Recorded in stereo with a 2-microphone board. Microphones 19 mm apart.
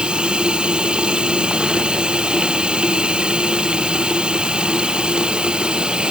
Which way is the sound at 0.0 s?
55° right (ahead or behind).